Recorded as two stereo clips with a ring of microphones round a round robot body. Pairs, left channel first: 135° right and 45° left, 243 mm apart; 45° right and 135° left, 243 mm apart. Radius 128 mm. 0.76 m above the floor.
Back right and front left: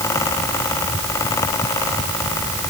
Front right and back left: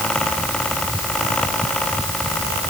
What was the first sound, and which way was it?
Only background noise.